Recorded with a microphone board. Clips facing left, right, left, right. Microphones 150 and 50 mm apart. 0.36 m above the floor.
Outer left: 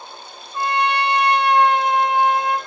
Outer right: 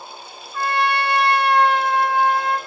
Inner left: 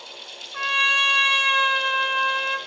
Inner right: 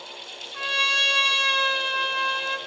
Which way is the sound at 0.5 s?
20° left (ahead or behind).